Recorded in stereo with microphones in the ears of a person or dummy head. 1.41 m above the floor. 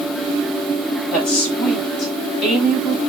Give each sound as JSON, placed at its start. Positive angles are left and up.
{"t": 1.1, "sound": "a woman speaking", "side_deg": 5, "distance_m": 8.5}